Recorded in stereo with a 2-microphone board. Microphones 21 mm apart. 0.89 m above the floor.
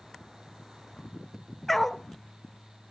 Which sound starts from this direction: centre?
A dog barking, at 1.7 s.